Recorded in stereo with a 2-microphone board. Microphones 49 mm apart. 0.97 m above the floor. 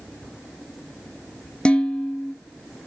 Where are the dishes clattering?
20° left (ahead or behind), 0.7 m.